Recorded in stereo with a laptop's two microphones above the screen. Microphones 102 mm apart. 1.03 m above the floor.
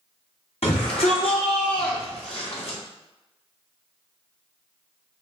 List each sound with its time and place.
0.6 s a shout: 75° left (ahead or behind), 3 m; by 2.8 s 80° left, 4.5 m